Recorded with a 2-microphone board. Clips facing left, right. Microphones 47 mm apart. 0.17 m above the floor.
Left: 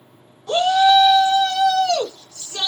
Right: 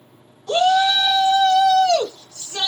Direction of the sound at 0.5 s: 20° left (ahead or behind).